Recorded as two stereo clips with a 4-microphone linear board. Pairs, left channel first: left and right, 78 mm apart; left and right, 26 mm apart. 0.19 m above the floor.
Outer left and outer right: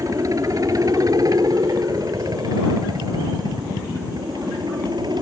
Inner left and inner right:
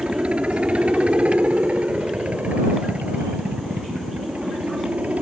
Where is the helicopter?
45° right (ahead or behind); by 5.2 s 60° right (ahead or behind).